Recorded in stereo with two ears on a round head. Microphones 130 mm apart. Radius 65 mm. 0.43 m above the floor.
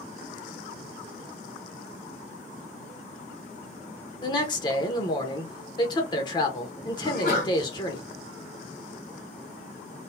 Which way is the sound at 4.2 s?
30° left (ahead or behind).